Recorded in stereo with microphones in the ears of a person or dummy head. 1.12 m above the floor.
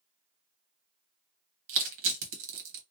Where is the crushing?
70° right (ahead or behind), 1.0 m.